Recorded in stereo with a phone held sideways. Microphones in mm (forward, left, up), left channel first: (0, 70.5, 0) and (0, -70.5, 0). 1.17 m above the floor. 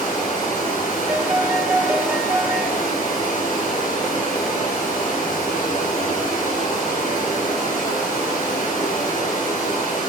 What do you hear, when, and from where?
0.0 s running water: 90° left, 6 m
1.1 s a piano: 10° right (ahead or behind), 0.7 m